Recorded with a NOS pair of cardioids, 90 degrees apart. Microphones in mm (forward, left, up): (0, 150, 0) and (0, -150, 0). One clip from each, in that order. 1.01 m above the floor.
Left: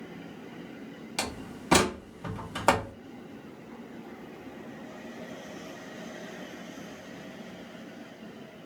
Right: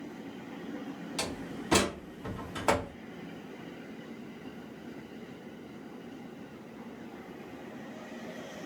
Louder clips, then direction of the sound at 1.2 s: Left 3 dB; 30° left.